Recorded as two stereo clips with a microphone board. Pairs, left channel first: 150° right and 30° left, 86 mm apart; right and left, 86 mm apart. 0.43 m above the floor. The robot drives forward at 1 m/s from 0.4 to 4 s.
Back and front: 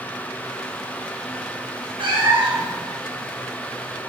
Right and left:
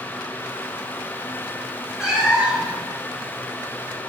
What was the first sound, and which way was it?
A cat meowing, 10° left.